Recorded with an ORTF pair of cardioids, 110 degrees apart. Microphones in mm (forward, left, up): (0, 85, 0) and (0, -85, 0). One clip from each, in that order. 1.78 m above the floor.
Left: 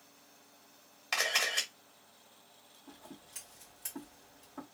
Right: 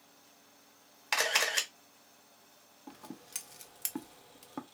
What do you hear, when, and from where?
1.1 s a camera shutter: 25° right, 1.0 m
2.9 s scissors: 65° right, 0.8 m